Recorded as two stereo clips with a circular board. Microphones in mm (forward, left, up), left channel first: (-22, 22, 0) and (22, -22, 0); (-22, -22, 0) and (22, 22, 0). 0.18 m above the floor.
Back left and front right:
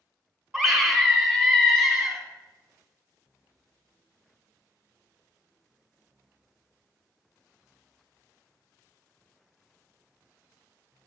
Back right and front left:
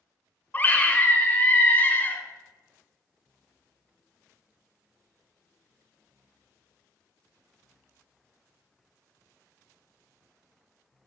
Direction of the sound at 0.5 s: 140° right.